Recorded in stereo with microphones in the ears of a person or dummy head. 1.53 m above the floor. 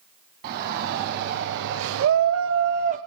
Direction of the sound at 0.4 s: 55° right (ahead or behind).